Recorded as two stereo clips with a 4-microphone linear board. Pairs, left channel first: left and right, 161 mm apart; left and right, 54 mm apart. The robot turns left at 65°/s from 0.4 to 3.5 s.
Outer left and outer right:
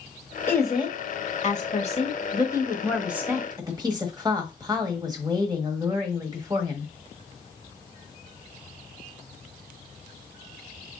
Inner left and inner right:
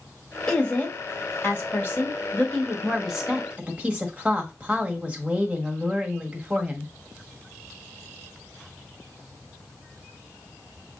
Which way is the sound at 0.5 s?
160° left.